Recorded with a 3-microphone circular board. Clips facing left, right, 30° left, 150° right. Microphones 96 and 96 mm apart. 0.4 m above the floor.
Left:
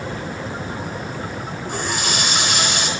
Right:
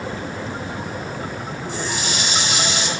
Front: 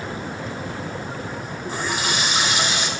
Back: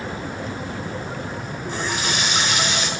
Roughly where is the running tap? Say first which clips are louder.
Left 2 dB, even; behind left.